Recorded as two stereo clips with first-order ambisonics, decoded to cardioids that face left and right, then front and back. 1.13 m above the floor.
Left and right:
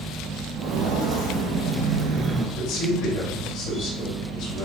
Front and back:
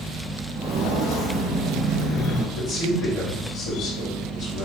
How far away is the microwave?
No microwave in this recording.